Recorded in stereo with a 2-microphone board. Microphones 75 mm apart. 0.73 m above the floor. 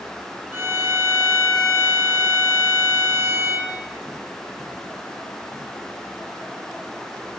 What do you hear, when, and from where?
0.5 s a violin: 25° right (ahead or behind), 3 m